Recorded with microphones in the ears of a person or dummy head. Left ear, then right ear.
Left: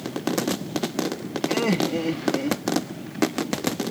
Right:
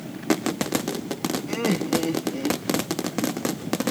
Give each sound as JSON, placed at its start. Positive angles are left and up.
{"t": 1.5, "sound": "laughter", "side_deg": 20}